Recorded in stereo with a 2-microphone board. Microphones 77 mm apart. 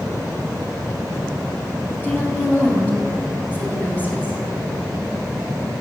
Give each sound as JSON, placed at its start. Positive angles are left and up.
{"t": 2.0, "sound": "a woman speaking", "side_deg": 25, "distance_m": 3.5}